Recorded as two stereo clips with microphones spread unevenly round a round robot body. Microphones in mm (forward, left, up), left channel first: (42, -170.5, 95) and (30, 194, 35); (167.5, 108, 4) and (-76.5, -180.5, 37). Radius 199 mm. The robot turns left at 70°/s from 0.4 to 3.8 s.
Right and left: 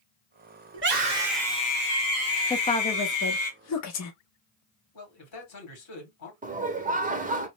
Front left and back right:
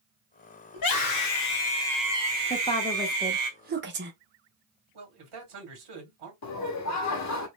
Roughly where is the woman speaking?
Ahead.